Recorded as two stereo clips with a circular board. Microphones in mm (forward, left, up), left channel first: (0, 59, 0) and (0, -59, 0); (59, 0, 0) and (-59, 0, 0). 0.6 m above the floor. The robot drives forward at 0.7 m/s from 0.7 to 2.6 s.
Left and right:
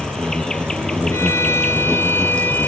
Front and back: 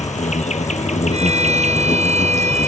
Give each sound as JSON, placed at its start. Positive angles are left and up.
{"t": 0.0, "sound": "an insect", "azimuth_deg": 5}
{"t": 1.1, "sound": "a violin", "azimuth_deg": 160}